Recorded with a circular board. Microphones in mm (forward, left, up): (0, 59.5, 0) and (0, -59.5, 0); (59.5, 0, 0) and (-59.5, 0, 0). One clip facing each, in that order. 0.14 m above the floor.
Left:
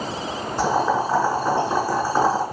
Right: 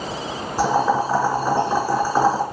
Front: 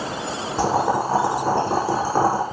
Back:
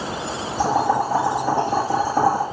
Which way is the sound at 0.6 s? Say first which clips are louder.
Right 2 dB, back 1 dB; 5° right.